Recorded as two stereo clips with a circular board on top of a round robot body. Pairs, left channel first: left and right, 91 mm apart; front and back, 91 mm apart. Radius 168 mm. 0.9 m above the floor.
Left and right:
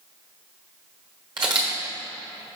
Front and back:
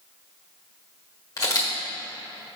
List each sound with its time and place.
1.4 s a camera shutter: 55° right, 1.3 m